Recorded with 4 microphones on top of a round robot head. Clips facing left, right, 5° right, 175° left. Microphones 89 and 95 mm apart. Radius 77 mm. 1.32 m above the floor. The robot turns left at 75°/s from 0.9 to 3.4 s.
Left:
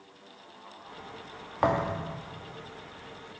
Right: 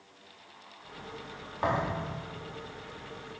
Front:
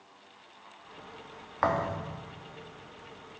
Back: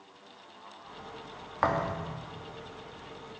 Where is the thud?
85° left, 0.9 m; by 2.1 s 45° left, 0.9 m.